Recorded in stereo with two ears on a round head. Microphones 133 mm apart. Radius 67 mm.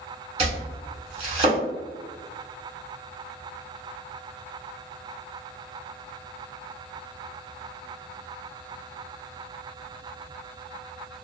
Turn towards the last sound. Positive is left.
turn(degrees=-40)  # may be behind; listen again after turning